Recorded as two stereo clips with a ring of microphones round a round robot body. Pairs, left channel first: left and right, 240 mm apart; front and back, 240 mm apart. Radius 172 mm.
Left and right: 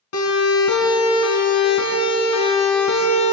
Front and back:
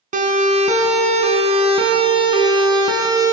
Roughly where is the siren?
Behind left.